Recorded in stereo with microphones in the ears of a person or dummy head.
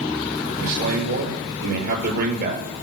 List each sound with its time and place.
0.6 s a man speaking: 55° right (ahead or behind), 6.5 m